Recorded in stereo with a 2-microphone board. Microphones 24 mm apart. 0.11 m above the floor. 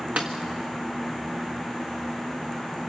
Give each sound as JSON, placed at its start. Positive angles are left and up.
{"t": 0.2, "sound": "a snare drum", "side_deg": -85, "distance_m": 1.6}